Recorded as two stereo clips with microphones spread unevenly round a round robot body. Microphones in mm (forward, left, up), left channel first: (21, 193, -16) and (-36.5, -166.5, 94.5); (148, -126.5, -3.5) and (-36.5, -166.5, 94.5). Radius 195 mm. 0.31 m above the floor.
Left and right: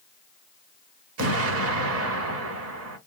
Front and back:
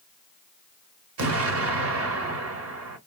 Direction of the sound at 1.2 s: 160° right.